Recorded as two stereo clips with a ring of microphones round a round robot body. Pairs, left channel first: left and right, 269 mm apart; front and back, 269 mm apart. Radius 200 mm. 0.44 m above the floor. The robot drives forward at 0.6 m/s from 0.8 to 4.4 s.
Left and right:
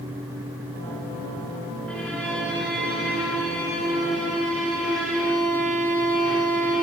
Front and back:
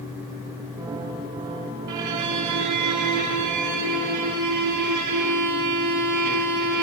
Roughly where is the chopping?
I don't hear chopping.